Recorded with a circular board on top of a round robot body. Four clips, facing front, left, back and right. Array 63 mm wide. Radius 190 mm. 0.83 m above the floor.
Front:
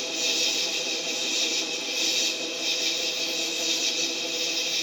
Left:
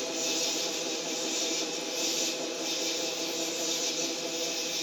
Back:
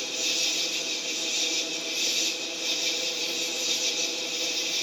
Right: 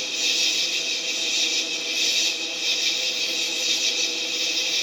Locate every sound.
0.0 s an insect: 75° right, 1.9 m